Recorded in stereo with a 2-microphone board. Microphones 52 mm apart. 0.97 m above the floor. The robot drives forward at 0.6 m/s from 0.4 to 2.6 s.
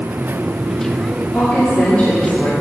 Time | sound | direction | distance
1.3 | a woman speaking | 30° left (ahead or behind) | 1.8 m